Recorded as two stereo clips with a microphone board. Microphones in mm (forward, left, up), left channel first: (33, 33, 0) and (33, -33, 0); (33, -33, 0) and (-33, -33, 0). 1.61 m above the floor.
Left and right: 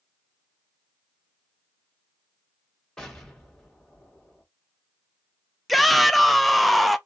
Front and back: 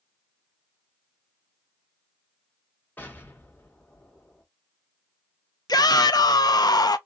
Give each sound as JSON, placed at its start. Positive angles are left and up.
{"t": 3.0, "sound": "an explosion", "azimuth_deg": 15, "distance_m": 1.2}
{"t": 5.7, "sound": "a shout", "azimuth_deg": 0, "distance_m": 0.5}